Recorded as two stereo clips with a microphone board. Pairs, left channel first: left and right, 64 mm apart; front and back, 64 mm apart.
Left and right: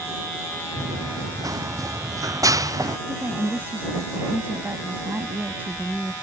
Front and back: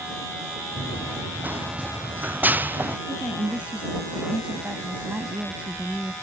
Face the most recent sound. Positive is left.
turn(degrees=-125)